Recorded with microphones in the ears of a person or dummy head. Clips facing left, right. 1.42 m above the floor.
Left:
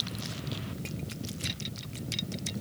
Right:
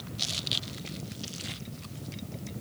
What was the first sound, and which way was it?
Only background noise.